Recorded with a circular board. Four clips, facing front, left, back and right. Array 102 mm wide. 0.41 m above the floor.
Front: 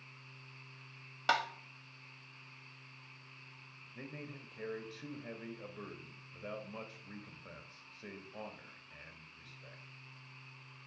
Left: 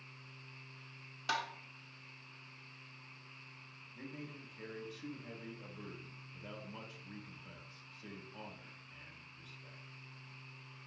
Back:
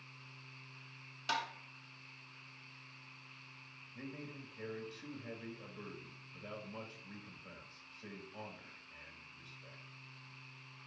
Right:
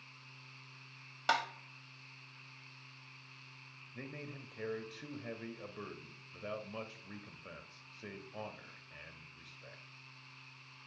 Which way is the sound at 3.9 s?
65° right.